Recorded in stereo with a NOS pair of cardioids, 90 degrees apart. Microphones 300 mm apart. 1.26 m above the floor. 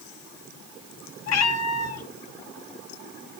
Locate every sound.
1.3 s a cat meowing: 60° left, 3.5 m